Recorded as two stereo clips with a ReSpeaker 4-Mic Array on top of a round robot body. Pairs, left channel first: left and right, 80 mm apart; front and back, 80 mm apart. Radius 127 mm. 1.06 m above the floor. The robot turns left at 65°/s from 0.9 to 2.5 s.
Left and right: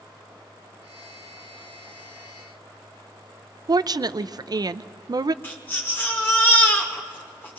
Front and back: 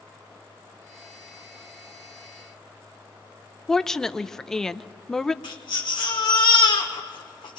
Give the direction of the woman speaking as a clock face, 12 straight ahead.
3 o'clock.